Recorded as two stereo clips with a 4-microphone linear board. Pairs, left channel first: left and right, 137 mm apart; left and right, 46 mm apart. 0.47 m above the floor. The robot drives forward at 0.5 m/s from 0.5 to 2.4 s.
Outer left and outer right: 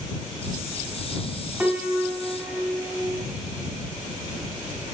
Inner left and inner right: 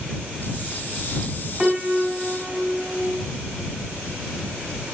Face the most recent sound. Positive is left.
turn(degrees=-10)  # may be behind; listen again after turning